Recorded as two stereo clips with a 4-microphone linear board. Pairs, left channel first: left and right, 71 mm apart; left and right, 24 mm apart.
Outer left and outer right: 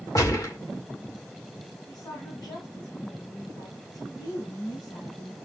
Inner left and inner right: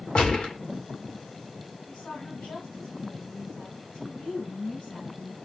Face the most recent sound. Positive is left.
turn(degrees=70)  # may be behind; listen again after turning